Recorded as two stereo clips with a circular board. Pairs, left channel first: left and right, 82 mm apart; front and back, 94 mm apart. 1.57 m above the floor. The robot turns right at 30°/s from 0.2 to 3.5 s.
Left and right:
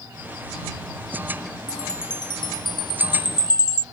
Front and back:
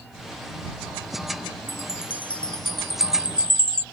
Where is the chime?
60° left; by 3.8 s 110° left.